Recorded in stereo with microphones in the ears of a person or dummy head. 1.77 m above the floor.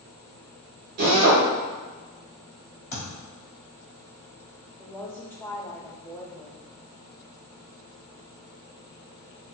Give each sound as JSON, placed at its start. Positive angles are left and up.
{"t": 1.0, "sound": "a drill", "side_deg": -35, "distance_m": 1.1}
{"t": 2.9, "sound": "a thud", "side_deg": 45, "distance_m": 1.9}
{"t": 4.8, "sound": "a woman speaking", "side_deg": 10, "distance_m": 0.6}